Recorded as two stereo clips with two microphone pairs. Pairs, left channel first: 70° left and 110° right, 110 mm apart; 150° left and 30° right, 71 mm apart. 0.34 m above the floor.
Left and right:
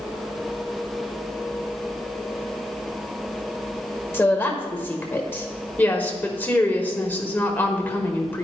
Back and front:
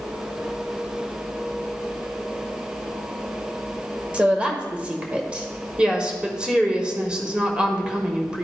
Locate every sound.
4.1 s a woman speaking: 25° left, 1.3 m
5.8 s a woman speaking: 20° left, 1.2 m